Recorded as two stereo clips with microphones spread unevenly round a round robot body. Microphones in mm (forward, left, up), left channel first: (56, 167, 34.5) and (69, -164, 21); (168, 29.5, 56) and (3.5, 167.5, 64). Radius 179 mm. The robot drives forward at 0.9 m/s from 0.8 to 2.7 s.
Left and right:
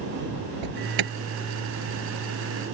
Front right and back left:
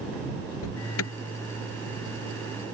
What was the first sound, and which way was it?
An alarm, 70° right.